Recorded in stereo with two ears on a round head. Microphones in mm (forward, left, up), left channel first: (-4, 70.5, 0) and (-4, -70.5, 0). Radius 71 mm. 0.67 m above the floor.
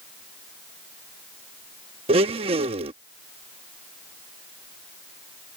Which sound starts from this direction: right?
A blender, at 2.1 s.